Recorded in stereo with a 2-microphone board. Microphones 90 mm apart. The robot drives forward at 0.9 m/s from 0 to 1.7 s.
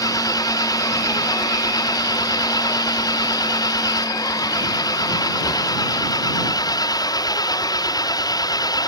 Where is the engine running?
40° left (ahead or behind); by 8.9 s 45° left (ahead or behind).